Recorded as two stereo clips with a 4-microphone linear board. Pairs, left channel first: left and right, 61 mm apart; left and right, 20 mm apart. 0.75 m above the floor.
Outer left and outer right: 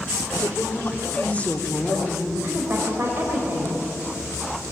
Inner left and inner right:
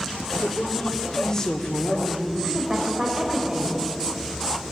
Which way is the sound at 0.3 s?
40° left (ahead or behind).